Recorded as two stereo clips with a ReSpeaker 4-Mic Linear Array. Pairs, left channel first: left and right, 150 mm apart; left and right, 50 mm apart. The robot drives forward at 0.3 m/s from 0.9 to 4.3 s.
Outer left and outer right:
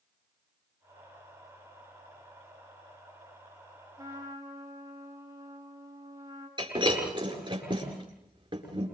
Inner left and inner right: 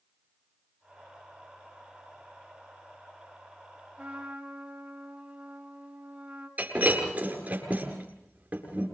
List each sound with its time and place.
4.0 s a trumpet: 25° right (ahead or behind), 6.5 m
6.6 s breaking glass: 35° right (ahead or behind), 8 m